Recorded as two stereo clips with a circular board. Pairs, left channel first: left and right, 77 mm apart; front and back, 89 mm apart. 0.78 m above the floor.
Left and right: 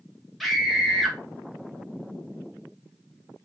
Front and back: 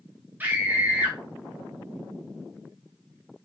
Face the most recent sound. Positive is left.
turn(degrees=180)